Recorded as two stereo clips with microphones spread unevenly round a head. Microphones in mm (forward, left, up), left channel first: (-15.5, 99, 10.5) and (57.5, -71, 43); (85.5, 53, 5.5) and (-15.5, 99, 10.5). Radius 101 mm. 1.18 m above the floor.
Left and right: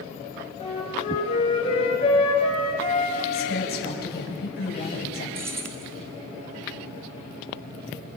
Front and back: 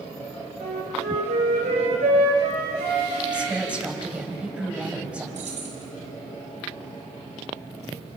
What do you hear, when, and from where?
0.6 s a flute: straight behind, 4 m
3.3 s a woman speaking: 75° left, 6.5 m
5.3 s keys jangling: 145° right, 1.4 m